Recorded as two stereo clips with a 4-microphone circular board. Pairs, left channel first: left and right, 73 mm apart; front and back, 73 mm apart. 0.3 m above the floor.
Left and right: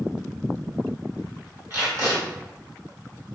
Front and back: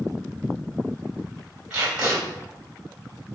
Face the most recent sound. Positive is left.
turn(degrees=-110)